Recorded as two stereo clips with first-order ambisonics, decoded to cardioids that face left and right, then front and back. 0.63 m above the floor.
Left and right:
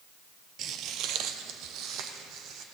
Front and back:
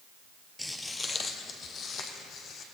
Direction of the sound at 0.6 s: 90° right.